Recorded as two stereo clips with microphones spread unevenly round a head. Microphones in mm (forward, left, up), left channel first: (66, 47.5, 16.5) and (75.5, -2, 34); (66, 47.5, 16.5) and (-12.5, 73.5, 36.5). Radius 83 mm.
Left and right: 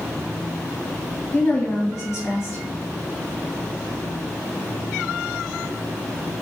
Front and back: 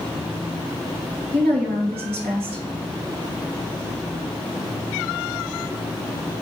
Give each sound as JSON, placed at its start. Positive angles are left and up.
{"t": 1.3, "sound": "a woman speaking", "azimuth_deg": -175, "distance_m": 1.1}